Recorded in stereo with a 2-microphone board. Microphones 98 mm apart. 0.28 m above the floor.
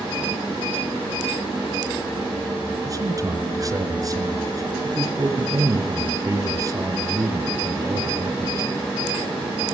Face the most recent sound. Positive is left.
turn(degrees=-35)  # may be behind; listen again after turning